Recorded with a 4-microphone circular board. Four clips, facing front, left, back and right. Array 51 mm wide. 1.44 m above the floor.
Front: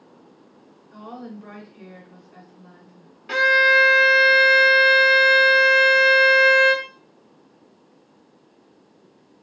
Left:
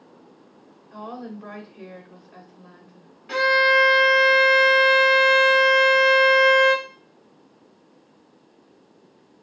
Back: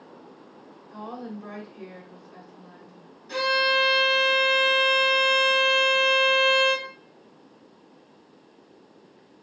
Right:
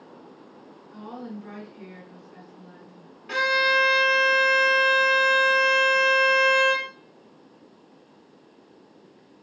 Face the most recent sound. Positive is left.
turn(degrees=0)